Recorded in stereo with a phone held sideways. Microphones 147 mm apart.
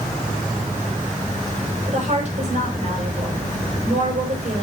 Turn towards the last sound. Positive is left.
turn(degrees=-55)  # may be behind; listen again after turning